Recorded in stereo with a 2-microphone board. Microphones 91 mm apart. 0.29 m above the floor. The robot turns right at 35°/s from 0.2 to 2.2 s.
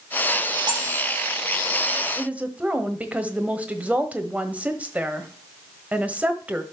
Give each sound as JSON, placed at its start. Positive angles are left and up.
{"t": 0.7, "sound": "cutlery clinking", "side_deg": -55, "distance_m": 6.5}
{"t": 2.1, "sound": "a woman speaking", "side_deg": -15, "distance_m": 1.3}